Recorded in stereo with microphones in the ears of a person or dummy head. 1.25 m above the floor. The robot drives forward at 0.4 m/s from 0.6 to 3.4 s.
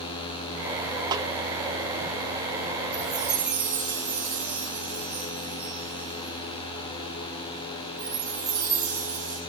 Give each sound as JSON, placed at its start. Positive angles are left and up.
{"t": 1.1, "sound": "a snare drum", "side_deg": -20, "distance_m": 0.8}
{"t": 2.9, "sound": "a chime", "side_deg": -5, "distance_m": 5.0}